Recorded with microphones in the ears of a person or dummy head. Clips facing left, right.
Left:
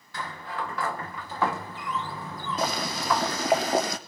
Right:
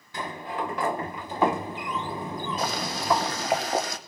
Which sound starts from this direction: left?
Boiling, at 2.6 s.